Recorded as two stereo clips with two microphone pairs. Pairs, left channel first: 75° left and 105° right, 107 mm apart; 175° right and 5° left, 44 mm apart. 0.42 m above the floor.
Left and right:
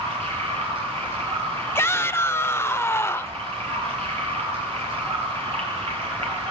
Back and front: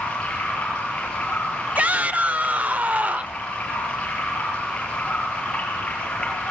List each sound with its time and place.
0.0 s running water: 115° right, 8.5 m
1.8 s a shout: 25° left, 1.0 m